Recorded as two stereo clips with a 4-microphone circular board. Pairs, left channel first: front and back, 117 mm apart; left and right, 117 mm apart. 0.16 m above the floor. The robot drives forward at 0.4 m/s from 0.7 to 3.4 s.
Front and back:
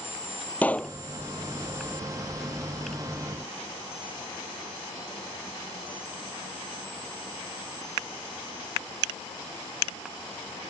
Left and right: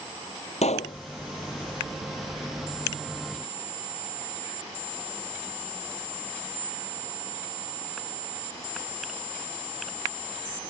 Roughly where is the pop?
Left.